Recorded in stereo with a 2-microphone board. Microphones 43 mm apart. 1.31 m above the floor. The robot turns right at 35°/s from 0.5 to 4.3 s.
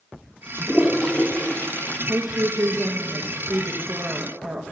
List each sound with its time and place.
0.6 s a toilet flushing: 15° left (ahead or behind), 1.1 m; by 2.0 s 45° left (ahead or behind), 1.1 m
2.1 s a woman speaking: 120° right, 1.2 m; by 4.6 s 45° right, 1.2 m